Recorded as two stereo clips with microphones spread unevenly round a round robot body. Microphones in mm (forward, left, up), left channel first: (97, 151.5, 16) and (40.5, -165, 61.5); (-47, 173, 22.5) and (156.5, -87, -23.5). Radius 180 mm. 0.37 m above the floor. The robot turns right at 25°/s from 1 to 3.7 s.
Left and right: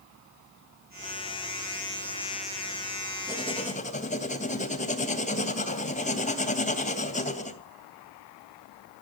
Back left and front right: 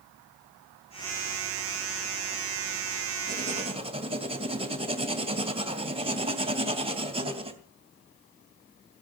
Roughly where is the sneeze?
I don't hear a sneeze.